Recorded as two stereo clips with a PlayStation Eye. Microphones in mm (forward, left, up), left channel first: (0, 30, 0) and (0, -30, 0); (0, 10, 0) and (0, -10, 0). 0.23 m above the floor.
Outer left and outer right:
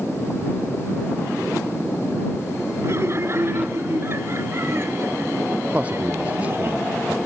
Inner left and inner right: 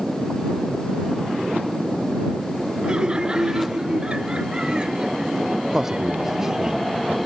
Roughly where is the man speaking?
Right.